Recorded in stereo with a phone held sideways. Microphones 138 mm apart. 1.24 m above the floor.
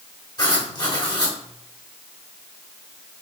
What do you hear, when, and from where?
0.4 s writing: 35° left (ahead or behind), 2 m